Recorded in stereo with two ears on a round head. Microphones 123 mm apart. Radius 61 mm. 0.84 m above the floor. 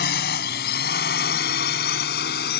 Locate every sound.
0.0 s a drone: 80° left